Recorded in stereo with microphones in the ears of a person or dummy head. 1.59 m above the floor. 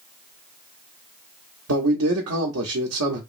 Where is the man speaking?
85° right, 0.7 m.